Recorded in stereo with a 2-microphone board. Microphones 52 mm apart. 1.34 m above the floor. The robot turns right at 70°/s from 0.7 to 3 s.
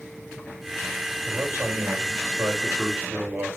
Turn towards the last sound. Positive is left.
turn(degrees=-30)